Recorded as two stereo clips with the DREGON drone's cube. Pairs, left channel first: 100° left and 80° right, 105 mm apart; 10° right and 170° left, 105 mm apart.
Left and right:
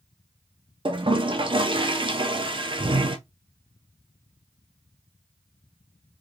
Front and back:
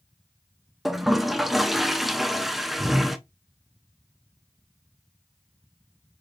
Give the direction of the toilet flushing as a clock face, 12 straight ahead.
3 o'clock.